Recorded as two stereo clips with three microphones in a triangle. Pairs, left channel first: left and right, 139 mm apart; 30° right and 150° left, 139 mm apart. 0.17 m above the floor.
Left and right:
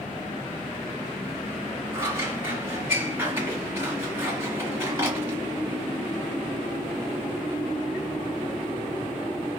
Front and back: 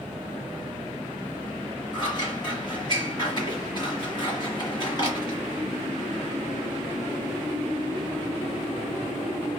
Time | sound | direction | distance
1.9 | scissors | 35° right | 1.9 m